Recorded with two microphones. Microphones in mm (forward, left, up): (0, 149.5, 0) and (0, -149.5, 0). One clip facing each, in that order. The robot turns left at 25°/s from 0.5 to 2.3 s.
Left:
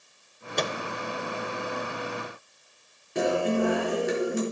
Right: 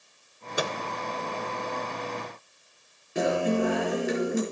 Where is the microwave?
5° right (ahead or behind), 0.7 m; by 0.7 s 10° right (ahead or behind), 0.7 m.